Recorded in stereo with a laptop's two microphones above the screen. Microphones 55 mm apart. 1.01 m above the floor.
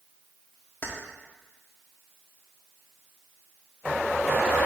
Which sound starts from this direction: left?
Keys jangling, at 0.8 s.